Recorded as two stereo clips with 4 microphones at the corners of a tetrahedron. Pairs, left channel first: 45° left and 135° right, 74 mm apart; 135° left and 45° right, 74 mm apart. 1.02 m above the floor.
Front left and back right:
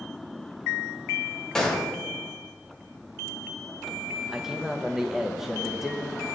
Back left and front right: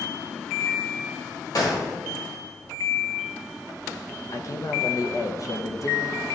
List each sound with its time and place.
1.6 s a gunshot: 125° left, 1.1 m
4.3 s a man speaking: 145° left, 0.6 m